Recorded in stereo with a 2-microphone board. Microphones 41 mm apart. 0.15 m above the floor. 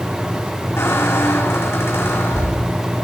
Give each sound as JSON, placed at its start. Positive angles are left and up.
{"t": 0.8, "sound": "a squeak", "side_deg": 80, "distance_m": 4.5}